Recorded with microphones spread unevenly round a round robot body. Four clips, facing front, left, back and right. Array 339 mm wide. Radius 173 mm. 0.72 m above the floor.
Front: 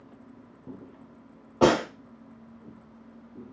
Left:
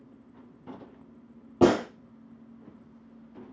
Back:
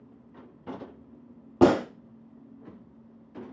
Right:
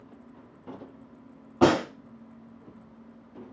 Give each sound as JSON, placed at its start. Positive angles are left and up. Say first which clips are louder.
{"t": 1.6, "sound": "a gunshot", "louder": "even, back 1 dB", "azimuth_deg": 140, "distance_m": 1.0}